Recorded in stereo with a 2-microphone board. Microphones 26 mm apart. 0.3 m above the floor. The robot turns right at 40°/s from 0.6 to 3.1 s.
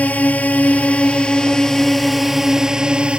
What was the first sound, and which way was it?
A drone, 120° left.